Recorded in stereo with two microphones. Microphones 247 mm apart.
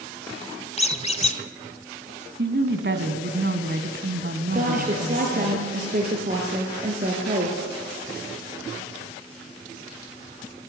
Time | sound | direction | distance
0.8 | a squeak | 25° left (ahead or behind) | 1.1 m
2.4 | a woman speaking | 45° right (ahead or behind) | 2 m
4.5 | a woman speaking | 35° right (ahead or behind) | 4 m